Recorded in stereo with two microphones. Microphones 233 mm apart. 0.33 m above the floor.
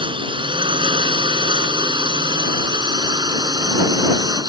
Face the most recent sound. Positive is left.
turn(degrees=-15)  # may be behind; listen again after turning